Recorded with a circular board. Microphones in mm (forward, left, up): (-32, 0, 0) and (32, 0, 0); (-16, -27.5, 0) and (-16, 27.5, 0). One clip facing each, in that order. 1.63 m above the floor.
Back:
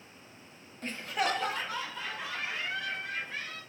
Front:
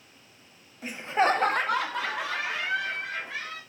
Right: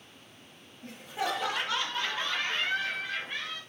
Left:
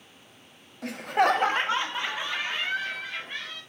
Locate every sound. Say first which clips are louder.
0.8 s laughter: front 7 dB, left 11 dB; 85° left, 0.6 m; by 3.6 s 5° right, 2 m